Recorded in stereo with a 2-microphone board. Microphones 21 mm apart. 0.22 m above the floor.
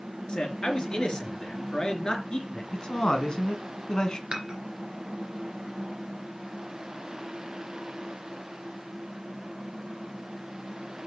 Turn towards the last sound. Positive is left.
turn(degrees=-35)  # may be behind; listen again after turning